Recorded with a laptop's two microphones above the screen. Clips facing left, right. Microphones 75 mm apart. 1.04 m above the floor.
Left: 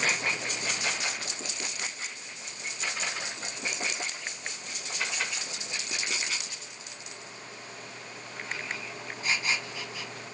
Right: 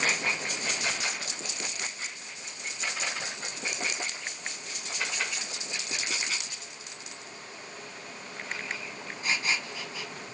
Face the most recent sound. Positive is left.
No sound to turn to.